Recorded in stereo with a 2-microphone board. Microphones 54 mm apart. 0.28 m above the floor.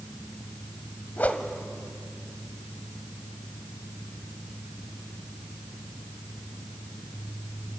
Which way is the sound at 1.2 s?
30° left (ahead or behind).